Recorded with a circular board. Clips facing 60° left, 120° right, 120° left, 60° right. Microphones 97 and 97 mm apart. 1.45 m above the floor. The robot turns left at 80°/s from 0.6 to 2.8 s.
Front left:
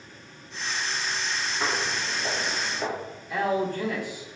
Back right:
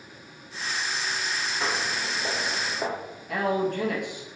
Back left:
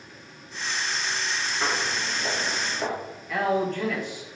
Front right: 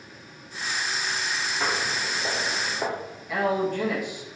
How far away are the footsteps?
About 2.0 m.